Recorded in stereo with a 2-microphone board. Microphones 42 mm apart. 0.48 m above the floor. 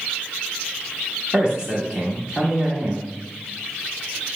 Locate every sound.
1.3 s a man speaking: 20° right (ahead or behind), 1.2 m